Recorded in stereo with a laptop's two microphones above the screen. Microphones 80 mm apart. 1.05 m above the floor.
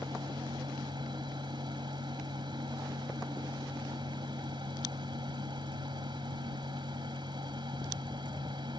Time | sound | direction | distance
0.0 | a fan | 80° right | ?